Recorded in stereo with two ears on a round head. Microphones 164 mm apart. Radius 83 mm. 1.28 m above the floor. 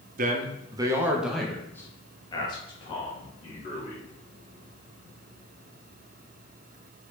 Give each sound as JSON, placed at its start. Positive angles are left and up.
{"t": 0.2, "sound": "a man speaking", "side_deg": -45, "distance_m": 1.4}